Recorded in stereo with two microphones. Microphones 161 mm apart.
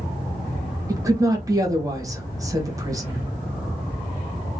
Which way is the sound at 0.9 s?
20° right (ahead or behind).